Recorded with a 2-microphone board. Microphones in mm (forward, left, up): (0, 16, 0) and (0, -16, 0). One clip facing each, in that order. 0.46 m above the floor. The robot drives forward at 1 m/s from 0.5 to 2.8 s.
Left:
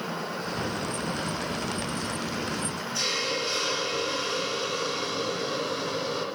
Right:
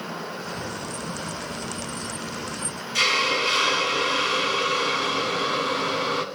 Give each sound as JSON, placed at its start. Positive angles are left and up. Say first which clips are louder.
{"t": 3.0, "sound": "a hiss", "louder": "right 9 dB", "side_deg": -80, "distance_m": 2.0}